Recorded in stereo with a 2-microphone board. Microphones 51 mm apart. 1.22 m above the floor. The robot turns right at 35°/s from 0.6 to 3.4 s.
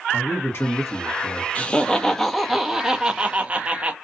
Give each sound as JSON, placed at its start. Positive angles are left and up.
{"t": 0.1, "sound": "a man speaking", "side_deg": 55, "distance_m": 1.1}
{"t": 1.6, "sound": "laughter", "azimuth_deg": 150, "distance_m": 0.6}